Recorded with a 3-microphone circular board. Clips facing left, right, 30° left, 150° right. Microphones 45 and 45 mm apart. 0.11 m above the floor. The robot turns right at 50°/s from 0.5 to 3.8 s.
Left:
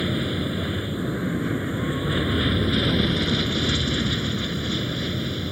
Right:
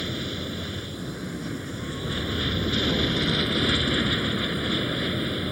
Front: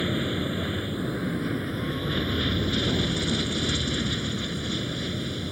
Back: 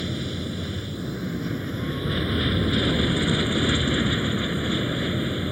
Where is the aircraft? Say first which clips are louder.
Left 6 dB, front 3 dB; 45° left; by 5.5 s 150° right.